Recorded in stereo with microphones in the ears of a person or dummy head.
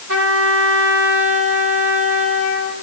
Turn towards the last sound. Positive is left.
turn(degrees=-70)  # may be behind; listen again after turning